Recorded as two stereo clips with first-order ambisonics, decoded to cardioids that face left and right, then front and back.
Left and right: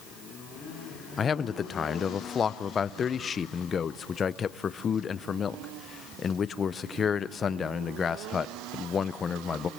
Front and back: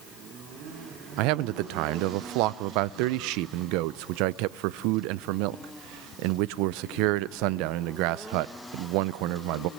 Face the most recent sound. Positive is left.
turn(degrees=160)